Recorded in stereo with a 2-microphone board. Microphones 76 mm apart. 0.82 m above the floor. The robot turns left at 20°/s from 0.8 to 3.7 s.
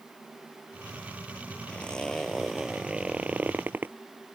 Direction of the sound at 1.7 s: 15° left.